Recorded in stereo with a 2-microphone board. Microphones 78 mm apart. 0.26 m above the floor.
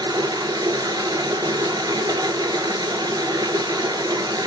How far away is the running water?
About 0.8 m.